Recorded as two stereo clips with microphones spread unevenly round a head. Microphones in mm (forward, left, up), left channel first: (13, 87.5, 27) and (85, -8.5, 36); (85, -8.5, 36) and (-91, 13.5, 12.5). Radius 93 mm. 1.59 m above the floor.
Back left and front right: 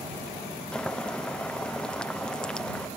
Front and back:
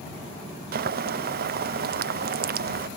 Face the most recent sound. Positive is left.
turn(degrees=-150)